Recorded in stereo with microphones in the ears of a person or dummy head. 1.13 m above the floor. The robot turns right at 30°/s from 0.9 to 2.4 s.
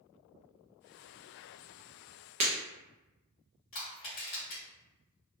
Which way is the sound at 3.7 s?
25° left (ahead or behind).